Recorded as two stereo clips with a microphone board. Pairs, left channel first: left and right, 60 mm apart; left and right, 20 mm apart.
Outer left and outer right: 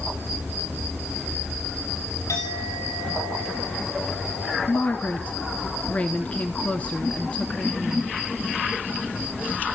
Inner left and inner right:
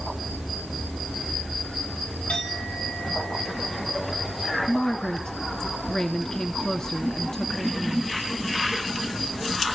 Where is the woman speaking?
20° left (ahead or behind), 1.2 m.